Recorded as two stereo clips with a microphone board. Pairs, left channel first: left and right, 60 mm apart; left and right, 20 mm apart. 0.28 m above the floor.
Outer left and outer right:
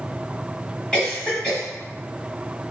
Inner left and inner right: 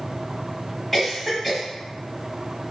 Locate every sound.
0.9 s a cough: 20° left (ahead or behind), 1.5 m